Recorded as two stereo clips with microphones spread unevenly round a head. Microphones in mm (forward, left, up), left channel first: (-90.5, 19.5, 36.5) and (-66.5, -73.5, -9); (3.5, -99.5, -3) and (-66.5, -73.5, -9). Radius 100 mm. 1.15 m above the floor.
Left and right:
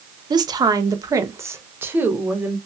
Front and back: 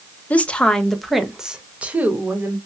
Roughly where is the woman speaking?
Right.